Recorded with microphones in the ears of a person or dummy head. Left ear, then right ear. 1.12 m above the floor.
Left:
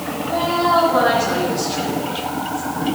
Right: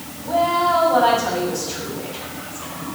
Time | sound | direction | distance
0.2 | a woman speaking | 40° right (ahead or behind) | 7 m